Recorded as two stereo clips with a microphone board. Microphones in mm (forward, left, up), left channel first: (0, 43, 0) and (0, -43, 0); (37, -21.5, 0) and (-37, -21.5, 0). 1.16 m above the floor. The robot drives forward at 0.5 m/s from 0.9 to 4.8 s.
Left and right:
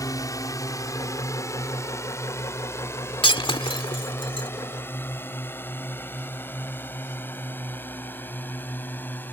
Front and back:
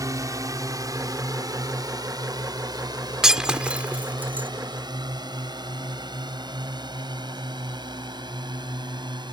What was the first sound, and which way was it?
A drone, 140° left.